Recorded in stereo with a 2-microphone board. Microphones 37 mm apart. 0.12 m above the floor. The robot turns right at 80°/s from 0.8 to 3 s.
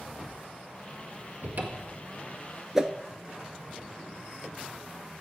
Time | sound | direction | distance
1.4 | a cupboard door | 115° right | 1.2 m
2.8 | a whoosh | 15° right (ahead or behind) | 0.5 m